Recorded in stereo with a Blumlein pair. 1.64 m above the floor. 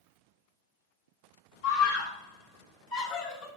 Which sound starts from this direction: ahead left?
A scream, at 1.6 s.